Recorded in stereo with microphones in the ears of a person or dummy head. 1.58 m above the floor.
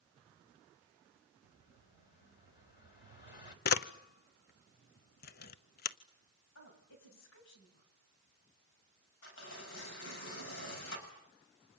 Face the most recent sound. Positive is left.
turn(degrees=70)  # may be behind; listen again after turning